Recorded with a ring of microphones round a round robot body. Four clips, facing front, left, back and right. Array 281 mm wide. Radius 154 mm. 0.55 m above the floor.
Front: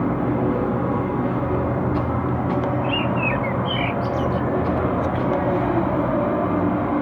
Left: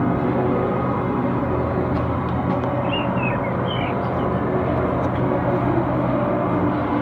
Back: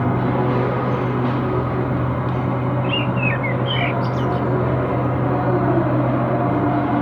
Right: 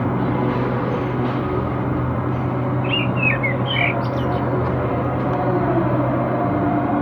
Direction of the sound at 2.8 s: 95° right.